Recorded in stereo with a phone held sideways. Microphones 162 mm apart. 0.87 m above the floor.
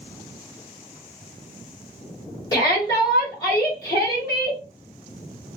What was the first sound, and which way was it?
A shout, 25° left (ahead or behind).